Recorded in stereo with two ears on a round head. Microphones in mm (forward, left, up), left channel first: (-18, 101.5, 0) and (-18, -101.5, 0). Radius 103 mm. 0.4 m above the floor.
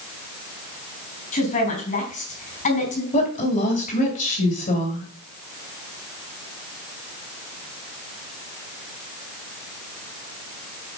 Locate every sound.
1.3 s a woman speaking: 35° left (ahead or behind), 4 m
3.1 s a woman speaking: 35° left (ahead or behind), 2.5 m